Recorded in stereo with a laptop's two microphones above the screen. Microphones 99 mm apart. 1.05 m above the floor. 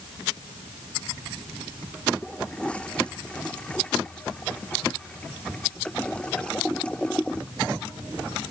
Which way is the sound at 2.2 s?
10° left (ahead or behind).